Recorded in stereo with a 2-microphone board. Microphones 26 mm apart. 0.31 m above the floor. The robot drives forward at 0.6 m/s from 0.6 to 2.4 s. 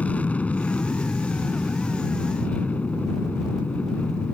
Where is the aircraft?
65° left (ahead or behind).